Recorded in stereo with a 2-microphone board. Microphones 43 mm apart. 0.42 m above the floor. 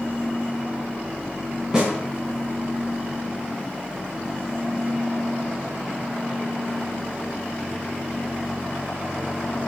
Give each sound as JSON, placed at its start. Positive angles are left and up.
{"t": 1.7, "sound": "a snare drum", "side_deg": -10, "distance_m": 3.5}